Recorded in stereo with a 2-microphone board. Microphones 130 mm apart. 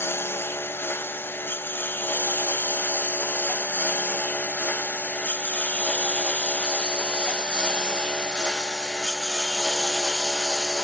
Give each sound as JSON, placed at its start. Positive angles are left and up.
{"t": 0.0, "sound": "a lawn mower", "side_deg": 15}